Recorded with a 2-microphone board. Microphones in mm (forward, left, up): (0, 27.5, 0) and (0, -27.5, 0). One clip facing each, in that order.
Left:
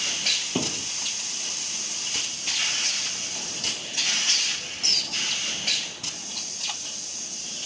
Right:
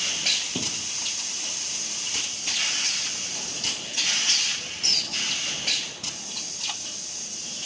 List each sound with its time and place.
0.6 s a thud: 25° left (ahead or behind)